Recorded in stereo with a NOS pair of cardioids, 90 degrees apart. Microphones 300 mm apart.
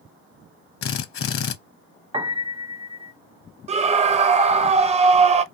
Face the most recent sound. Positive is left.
turn(degrees=-20)